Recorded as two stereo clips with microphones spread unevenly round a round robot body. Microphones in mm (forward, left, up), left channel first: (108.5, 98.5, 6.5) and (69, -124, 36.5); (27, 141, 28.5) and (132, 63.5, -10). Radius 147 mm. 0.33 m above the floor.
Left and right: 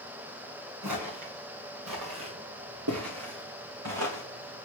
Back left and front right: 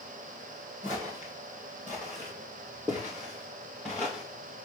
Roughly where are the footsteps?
Behind right.